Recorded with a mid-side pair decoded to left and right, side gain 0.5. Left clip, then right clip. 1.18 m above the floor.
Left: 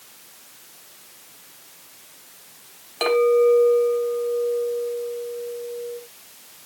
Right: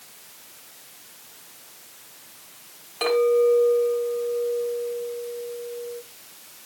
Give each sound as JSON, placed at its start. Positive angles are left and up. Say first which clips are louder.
{"t": 3.0, "sound": "a clink", "louder": "left 2 dB", "azimuth_deg": 35, "distance_m": 3.5}